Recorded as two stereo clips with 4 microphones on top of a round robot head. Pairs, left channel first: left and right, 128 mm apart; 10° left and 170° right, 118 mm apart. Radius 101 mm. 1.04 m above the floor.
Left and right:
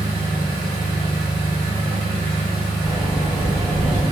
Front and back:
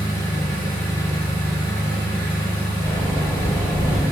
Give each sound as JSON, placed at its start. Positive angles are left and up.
{"t": 0.0, "sound": "an engine running", "azimuth_deg": -165, "distance_m": 1.6}
{"t": 2.8, "sound": "a sliding door", "azimuth_deg": -145, "distance_m": 1.6}